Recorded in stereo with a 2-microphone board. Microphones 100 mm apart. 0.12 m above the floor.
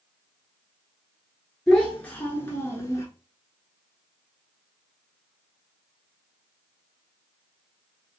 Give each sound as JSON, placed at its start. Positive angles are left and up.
{"t": 1.7, "sound": "a child speaking", "side_deg": 5, "distance_m": 1.0}